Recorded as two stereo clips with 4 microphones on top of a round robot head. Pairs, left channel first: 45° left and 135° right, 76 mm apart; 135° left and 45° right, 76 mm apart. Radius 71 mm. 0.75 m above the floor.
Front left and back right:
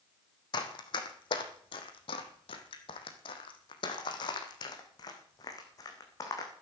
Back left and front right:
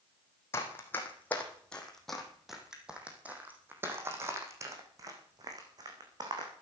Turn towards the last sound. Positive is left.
turn(degrees=-5)